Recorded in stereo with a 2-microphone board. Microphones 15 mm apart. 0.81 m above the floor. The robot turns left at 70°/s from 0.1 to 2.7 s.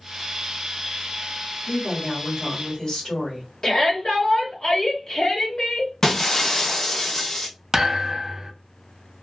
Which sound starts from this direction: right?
A thud, at 7.7 s.